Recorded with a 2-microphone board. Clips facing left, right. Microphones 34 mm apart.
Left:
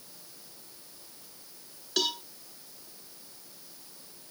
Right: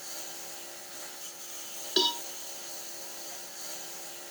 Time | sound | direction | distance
0.0 | a lawn mower | 70° right (ahead or behind) | ?
2.0 | a cowbell | 15° right (ahead or behind) | ?